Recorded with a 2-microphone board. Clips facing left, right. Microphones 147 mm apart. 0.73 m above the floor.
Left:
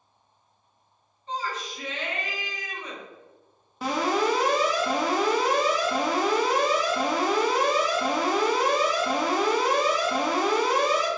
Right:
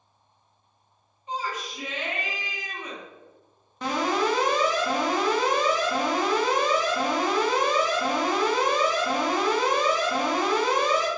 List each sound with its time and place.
1.3 s a shout: 10° right (ahead or behind), 1.3 m
3.8 s an alarm: 5° left (ahead or behind), 1.3 m